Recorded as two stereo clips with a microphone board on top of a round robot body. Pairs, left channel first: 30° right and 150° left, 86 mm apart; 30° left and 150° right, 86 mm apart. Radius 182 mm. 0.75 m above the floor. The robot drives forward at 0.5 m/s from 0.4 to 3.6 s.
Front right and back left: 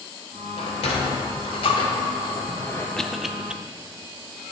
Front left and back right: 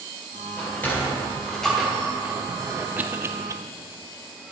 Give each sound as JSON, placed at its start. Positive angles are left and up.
{"t": 0.6, "sound": "a sliding door", "azimuth_deg": -35, "distance_m": 1.4}
{"t": 3.0, "sound": "a cough", "azimuth_deg": -105, "distance_m": 0.9}